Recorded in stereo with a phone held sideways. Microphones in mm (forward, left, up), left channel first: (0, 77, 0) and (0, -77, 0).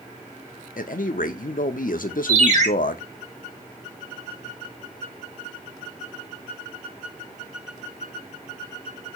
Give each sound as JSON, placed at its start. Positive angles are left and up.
{"t": 0.8, "sound": "a man speaking", "side_deg": 75, "distance_m": 0.5}
{"t": 2.3, "sound": "a ringtone", "side_deg": -55, "distance_m": 1.5}